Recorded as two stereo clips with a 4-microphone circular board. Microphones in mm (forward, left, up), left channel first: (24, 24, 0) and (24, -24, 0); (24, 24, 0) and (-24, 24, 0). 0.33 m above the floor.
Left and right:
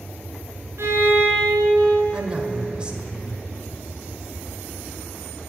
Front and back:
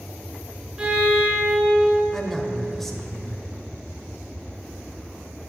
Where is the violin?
115° right, 4.5 m.